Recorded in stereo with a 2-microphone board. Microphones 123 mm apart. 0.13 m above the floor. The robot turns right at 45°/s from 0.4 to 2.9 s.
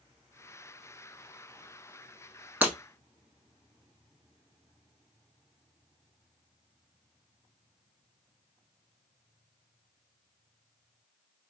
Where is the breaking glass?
15° right (ahead or behind), 0.9 m.